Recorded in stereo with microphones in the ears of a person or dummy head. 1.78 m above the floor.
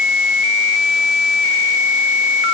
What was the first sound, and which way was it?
Only background noise.